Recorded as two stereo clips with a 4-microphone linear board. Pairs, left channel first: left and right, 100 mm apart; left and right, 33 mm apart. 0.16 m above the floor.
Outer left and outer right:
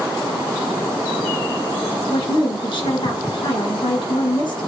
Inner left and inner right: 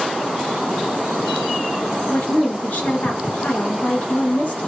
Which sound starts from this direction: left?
A woman speaking, at 2.1 s.